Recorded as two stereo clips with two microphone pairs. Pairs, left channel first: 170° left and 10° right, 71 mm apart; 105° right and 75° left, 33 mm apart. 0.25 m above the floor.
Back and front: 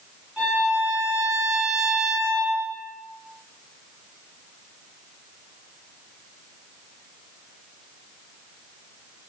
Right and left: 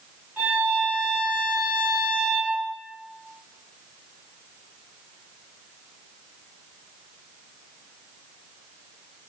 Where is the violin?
70° left, 1.9 m.